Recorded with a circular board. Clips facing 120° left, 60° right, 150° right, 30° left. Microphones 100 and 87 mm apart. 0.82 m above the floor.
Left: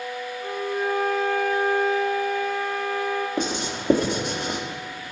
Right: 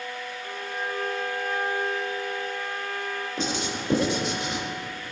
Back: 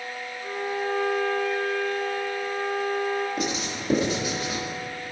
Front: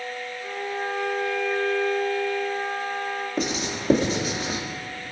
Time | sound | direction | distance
0.4 | a violin | 115° left | 4 m
3.4 | writing | 90° left | 1.9 m